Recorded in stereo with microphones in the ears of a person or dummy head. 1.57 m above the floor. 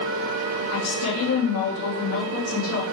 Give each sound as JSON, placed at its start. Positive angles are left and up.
{"t": 0.7, "sound": "a woman speaking", "side_deg": 75, "distance_m": 3.0}